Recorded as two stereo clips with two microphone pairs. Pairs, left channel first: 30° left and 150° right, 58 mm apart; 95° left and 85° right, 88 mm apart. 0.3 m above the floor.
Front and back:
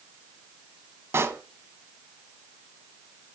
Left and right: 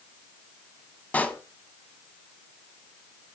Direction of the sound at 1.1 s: 170° left.